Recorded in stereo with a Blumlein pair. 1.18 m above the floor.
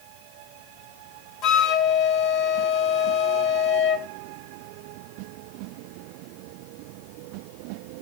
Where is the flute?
35° left, 0.8 m.